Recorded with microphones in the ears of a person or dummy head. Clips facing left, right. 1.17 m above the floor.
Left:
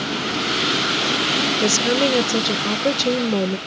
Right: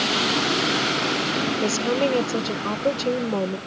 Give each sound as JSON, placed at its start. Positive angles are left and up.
{"t": 1.6, "sound": "a woman speaking", "side_deg": 20}